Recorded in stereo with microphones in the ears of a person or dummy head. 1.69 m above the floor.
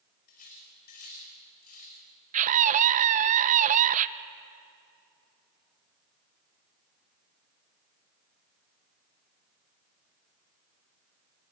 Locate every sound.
0.3 s cutlery clinking: 45° left (ahead or behind), 5 m
2.3 s a scream: 40° right (ahead or behind), 1.0 m